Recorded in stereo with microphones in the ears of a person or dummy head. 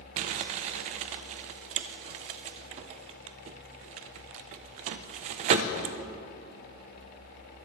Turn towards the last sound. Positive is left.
turn(degrees=-40)  # may be behind; listen again after turning